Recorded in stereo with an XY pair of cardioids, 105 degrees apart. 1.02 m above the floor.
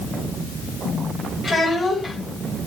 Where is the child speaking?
40° left, 3 m.